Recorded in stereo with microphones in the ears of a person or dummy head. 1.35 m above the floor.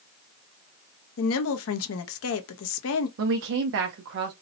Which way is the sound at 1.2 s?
70° left (ahead or behind).